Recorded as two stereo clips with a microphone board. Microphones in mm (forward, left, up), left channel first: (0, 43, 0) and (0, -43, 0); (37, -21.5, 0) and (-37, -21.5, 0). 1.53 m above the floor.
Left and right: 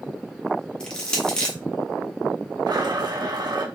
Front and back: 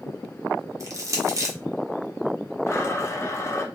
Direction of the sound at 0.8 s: 165° left.